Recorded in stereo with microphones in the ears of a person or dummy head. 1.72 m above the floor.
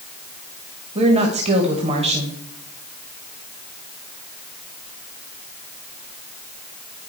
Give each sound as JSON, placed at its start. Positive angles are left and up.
{"t": 0.9, "sound": "a woman speaking", "side_deg": -30, "distance_m": 2.5}